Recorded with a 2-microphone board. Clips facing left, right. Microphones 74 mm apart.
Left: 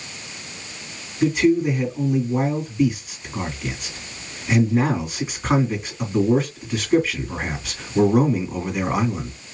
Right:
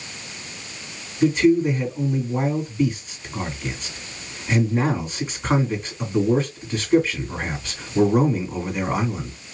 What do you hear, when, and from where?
1.2 s a man speaking: 5° left (ahead or behind), 1.9 m